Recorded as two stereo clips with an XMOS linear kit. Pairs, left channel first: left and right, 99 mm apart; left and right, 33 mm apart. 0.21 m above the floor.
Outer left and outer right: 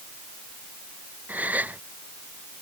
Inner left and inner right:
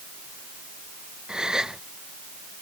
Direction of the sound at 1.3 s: 20° right (ahead or behind).